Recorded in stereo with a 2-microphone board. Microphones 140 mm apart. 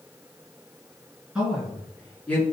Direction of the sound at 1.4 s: 5° right (ahead or behind).